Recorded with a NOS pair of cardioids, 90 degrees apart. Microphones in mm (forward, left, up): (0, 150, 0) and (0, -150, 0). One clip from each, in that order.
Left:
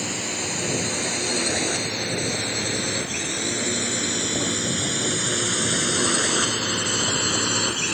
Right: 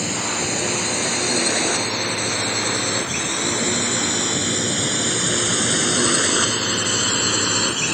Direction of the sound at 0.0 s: 25° right.